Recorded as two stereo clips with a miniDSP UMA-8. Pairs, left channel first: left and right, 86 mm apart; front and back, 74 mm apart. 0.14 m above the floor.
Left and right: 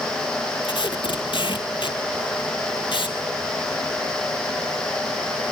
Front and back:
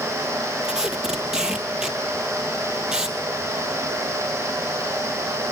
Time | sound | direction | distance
0.6 | tape being pulled | 100° left | 2.0 m